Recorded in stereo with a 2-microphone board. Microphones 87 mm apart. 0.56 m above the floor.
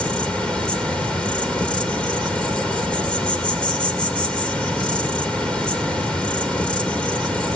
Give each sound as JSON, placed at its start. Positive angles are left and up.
{"t": 0.0, "sound": "an insect", "side_deg": 10, "distance_m": 2.0}